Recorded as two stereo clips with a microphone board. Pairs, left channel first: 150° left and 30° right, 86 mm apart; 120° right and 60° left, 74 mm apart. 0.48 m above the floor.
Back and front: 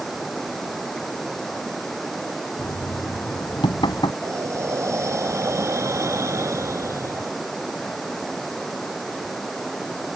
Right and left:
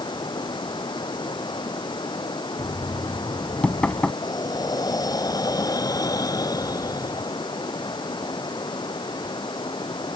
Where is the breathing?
85° right.